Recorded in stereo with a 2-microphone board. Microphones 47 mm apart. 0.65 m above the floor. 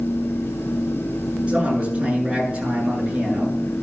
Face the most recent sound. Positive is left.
turn(degrees=-20)  # may be behind; listen again after turning